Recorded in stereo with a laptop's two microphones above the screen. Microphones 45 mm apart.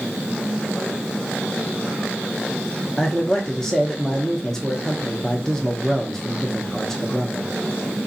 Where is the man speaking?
10° left (ahead or behind), 0.7 m.